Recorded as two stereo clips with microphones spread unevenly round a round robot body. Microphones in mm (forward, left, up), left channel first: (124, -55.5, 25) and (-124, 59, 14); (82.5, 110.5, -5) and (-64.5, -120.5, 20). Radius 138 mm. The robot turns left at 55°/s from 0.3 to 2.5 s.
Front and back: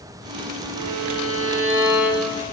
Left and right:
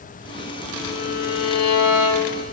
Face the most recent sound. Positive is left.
turn(degrees=45)